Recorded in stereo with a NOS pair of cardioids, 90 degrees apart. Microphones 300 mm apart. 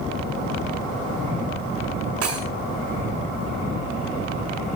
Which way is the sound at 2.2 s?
55° right.